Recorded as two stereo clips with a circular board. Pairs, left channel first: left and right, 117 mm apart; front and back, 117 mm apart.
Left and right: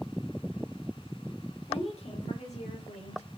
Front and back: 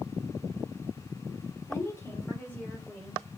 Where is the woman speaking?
65° left, 2.5 m; by 3.3 s 80° left, 3.5 m.